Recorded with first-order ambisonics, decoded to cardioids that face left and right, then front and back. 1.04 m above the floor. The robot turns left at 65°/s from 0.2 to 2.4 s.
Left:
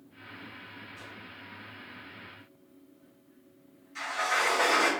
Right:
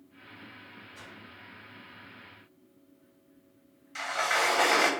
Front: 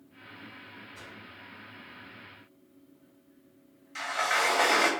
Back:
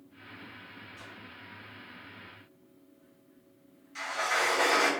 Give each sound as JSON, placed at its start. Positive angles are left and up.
{"t": 0.9, "sound": "a whoosh", "azimuth_deg": -40, "distance_m": 0.8}
{"t": 4.0, "sound": "a sliding door", "azimuth_deg": -60, "distance_m": 0.7}